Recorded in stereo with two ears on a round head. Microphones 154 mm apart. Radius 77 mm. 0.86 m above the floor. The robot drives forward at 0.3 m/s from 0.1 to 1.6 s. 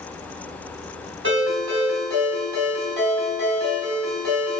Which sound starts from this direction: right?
A ringtone, at 1.2 s.